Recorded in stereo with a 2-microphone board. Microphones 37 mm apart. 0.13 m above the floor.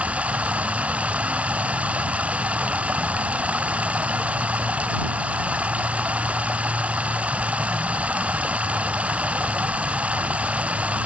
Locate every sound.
0.0 s running water: 40° right (ahead or behind)